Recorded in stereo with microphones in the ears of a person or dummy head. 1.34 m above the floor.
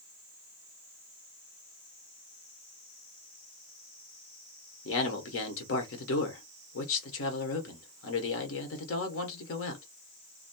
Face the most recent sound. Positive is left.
turn(degrees=65)  # may be behind; listen again after turning